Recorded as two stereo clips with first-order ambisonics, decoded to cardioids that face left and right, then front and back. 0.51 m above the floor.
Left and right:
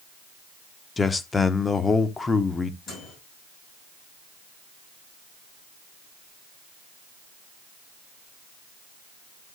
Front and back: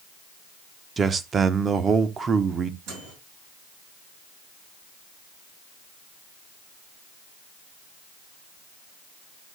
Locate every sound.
1.0 s a man speaking: 145° left, 0.7 m
2.9 s a microwave: 150° left, 7.5 m